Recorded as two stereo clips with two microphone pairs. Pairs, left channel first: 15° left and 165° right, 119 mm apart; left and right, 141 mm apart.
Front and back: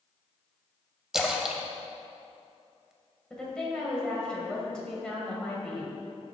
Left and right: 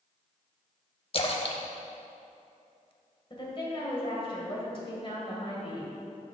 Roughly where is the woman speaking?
Left.